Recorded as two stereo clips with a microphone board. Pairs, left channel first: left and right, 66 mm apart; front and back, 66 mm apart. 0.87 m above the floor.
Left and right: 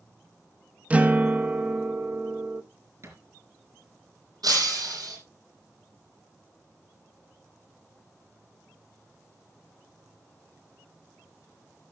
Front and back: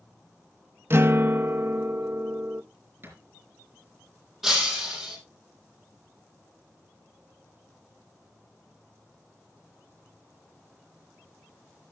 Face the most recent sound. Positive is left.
turn(degrees=-95)